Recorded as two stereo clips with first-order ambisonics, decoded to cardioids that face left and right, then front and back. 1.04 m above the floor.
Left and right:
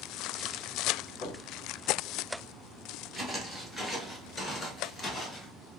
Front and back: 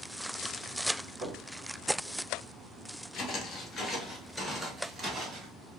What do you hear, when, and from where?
1.2 s knocking: 145° left, 1.0 m
3.1 s footsteps: 5° right, 1.2 m; by 5.5 s 145° left, 1.2 m